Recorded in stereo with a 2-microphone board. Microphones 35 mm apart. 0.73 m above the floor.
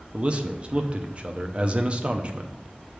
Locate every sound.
0.1 s a man speaking: 35° right (ahead or behind), 0.6 m